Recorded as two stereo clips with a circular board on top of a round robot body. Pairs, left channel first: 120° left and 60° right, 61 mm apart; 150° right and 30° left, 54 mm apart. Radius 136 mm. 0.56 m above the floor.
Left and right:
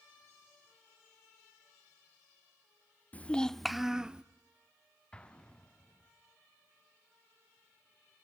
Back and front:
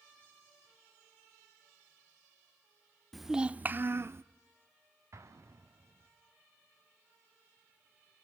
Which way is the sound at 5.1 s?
50° left.